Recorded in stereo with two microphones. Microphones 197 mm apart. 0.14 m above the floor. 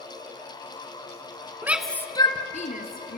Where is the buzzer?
No buzzer in this recording.